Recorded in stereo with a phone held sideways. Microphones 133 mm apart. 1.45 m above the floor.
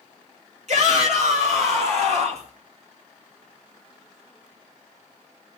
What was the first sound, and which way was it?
A shout, 65° right (ahead or behind).